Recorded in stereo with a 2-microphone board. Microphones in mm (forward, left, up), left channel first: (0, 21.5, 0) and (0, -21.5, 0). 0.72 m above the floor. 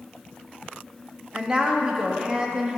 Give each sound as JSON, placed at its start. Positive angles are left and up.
{"t": 1.3, "sound": "a woman speaking", "side_deg": -20, "distance_m": 1.2}